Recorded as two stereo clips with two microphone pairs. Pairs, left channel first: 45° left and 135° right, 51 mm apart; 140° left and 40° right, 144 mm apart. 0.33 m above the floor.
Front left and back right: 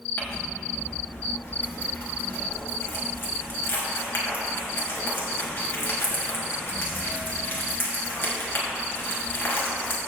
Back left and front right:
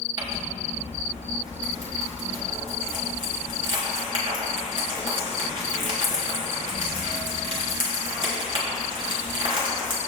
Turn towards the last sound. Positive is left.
turn(degrees=10)